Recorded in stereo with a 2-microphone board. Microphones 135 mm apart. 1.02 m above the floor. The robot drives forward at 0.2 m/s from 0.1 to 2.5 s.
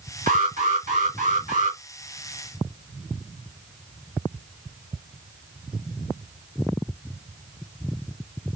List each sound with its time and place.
0.3 s an alarm: 80° right, 1.9 m; by 1.8 s 70° right (ahead or behind), 2.0 m